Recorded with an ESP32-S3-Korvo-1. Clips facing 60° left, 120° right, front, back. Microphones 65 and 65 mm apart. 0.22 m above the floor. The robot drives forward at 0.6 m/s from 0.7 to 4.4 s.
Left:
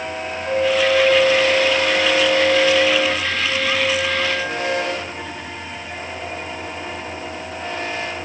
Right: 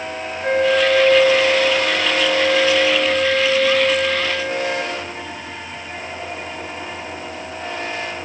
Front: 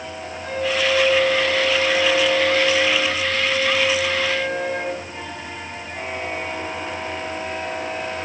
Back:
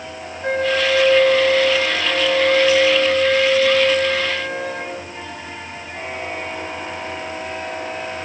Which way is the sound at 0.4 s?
150° right.